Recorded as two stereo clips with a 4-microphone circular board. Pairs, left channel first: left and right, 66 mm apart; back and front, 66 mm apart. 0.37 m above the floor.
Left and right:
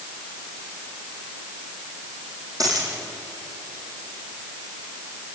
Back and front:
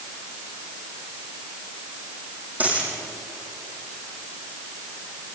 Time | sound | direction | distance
2.6 | a dropped coin | 65° right | 6.5 m